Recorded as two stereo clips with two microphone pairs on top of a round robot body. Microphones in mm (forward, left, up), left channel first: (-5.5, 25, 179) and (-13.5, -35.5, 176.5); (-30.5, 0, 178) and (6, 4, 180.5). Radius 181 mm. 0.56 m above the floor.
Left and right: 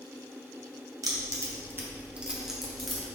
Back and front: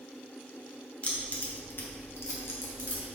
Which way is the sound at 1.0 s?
120° right.